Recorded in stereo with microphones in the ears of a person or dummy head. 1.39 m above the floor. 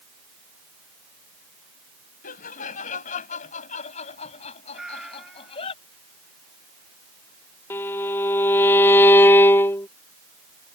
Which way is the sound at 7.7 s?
15° left (ahead or behind).